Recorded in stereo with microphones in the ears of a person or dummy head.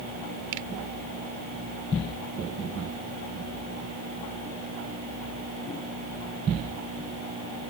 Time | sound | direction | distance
0.5 | a finger snap | 65° right (ahead or behind) | ?